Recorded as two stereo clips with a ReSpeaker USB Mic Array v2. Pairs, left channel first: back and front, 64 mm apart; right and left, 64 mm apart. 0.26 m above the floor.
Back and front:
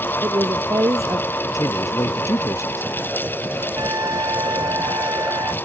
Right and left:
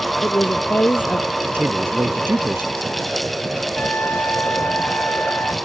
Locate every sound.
0.2 s a woman speaking: 30° right
1.5 s a man speaking: 145° left
3.8 s a trumpet: 30° right